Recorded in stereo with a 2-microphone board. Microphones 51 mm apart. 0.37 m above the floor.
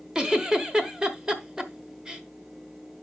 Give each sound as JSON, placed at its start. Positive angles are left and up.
{"t": 0.1, "sound": "a giggle", "side_deg": -15, "distance_m": 1.1}